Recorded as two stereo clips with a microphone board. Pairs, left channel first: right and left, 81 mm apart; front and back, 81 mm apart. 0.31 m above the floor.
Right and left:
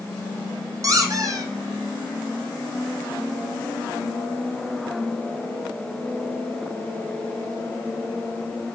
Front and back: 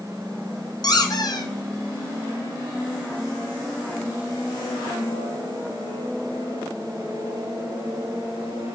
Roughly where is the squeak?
Ahead left.